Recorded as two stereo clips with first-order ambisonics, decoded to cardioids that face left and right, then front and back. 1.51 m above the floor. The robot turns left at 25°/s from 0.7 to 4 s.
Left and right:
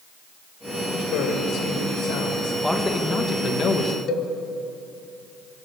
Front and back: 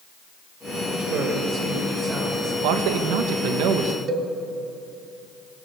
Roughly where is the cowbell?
Behind left.